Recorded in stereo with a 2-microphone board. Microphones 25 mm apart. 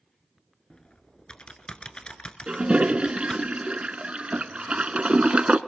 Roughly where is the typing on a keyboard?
Left.